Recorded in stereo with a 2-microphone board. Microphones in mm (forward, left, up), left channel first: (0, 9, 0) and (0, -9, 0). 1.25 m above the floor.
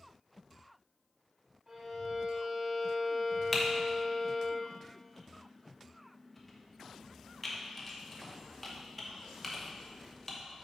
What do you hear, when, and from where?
1.7 s a violin: 30° right (ahead or behind), 1.2 m
3.5 s typing on a keyboard: 5° left (ahead or behind), 1.0 m